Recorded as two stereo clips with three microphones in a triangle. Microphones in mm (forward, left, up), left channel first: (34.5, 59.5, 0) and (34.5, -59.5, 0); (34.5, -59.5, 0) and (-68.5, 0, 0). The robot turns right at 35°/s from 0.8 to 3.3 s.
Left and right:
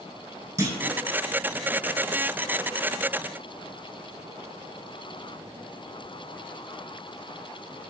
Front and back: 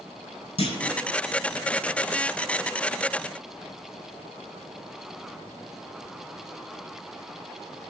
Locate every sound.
0.6 s a clunk: 30° right, 0.5 m; by 1.0 s 25° right, 0.5 m